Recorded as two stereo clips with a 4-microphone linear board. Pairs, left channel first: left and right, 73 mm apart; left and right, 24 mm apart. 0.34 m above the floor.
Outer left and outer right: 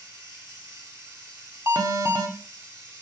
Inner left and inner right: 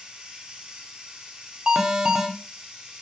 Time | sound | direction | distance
0.0 | running water | 50° right (ahead or behind) | 3.5 m
1.7 | an alarm | 45° right (ahead or behind) | 1.1 m